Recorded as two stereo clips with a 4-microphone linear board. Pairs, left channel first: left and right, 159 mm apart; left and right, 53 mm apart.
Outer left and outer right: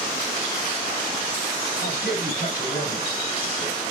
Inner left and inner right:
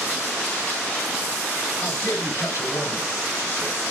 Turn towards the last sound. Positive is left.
turn(degrees=70)  # may be behind; listen again after turning